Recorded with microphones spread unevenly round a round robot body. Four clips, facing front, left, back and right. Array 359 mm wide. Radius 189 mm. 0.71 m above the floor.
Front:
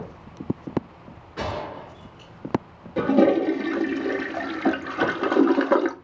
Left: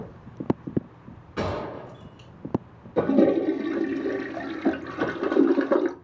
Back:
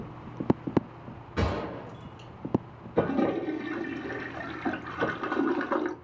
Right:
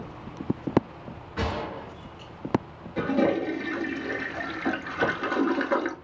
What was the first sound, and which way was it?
A gunshot, 165° left.